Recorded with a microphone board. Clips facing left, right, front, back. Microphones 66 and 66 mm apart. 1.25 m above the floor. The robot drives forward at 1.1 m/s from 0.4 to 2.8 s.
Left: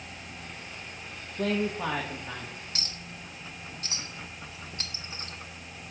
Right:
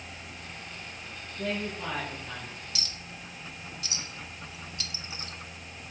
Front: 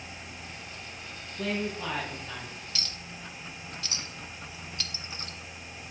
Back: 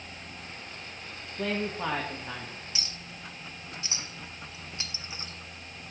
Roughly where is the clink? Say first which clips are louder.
Left 1 dB, front 1 dB; behind left.